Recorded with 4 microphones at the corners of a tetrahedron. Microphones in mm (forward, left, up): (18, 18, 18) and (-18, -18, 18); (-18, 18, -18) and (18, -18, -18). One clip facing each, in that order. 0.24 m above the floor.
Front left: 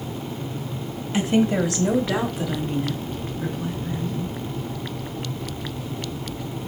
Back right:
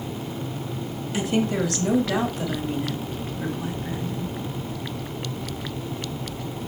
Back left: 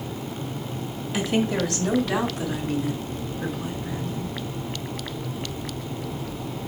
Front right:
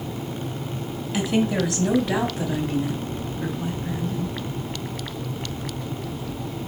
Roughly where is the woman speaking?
Ahead left.